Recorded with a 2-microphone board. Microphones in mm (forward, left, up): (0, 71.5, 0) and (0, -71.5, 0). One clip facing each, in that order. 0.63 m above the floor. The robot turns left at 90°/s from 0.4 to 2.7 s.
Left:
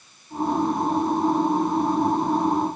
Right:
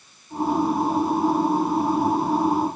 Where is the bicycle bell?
No bicycle bell in this recording.